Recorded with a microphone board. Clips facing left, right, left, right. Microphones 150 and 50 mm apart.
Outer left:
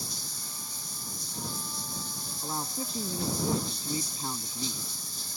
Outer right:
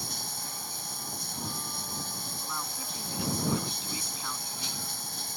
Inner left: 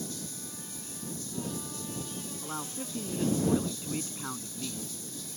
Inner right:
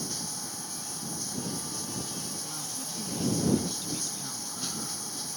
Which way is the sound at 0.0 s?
65° right (ahead or behind).